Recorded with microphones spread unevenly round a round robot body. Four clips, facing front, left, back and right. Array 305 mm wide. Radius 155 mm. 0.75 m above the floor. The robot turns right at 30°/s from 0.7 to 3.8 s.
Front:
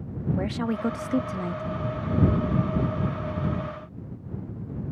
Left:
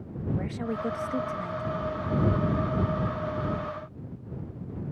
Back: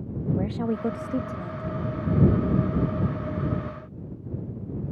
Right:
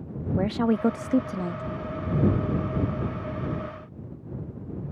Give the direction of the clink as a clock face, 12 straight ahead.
I don't hear a clink.